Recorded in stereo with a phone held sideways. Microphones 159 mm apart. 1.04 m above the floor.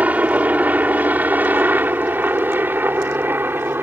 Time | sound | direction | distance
0.0 | a helicopter | 10° right (ahead or behind) | ?